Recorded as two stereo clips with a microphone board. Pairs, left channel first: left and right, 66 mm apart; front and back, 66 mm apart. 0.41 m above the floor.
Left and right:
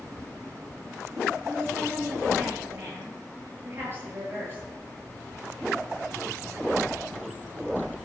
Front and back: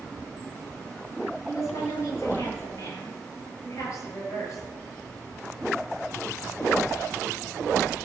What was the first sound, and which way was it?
A woman speaking, 35° right.